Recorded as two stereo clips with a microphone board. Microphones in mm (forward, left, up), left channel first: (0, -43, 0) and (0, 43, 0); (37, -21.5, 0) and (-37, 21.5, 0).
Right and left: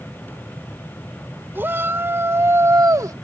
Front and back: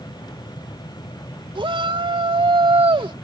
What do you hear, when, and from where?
1.6 s a shout: 155° left; by 3.1 s 135° left